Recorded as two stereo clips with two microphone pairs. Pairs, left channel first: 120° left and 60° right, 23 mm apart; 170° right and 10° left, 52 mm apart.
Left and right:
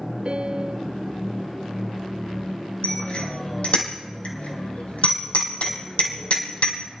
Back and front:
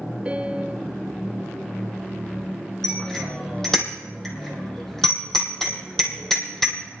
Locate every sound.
0.2 s a piano: 50° right, 0.6 m
2.8 s a bicycle bell: 110° left, 3 m